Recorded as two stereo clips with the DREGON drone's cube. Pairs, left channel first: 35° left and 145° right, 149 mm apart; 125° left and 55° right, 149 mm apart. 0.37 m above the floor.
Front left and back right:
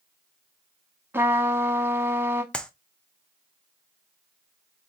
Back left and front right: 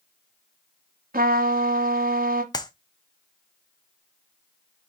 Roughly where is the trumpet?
Right.